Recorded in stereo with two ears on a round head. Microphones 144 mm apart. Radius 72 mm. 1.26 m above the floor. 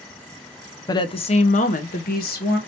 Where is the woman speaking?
25° left (ahead or behind), 0.7 m; by 2.6 s 65° left (ahead or behind), 1.3 m.